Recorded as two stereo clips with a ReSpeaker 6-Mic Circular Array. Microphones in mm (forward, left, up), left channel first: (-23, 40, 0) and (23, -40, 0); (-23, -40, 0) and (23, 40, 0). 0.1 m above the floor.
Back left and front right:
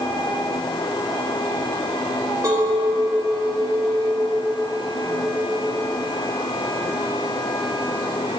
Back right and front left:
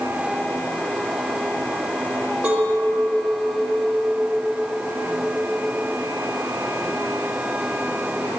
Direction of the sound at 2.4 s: 15° right.